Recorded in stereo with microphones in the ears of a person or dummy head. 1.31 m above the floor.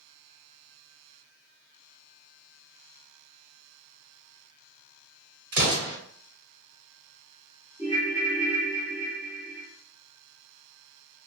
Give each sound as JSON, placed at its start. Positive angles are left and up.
{"t": 5.5, "sound": "an explosion", "side_deg": -50, "distance_m": 1.5}
{"t": 7.8, "sound": "a ringtone", "side_deg": -5, "distance_m": 0.8}